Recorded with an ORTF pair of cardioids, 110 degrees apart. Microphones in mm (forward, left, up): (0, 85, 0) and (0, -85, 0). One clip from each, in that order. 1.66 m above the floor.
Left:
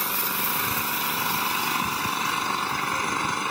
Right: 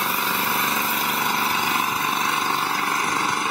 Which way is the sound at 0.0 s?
65° right.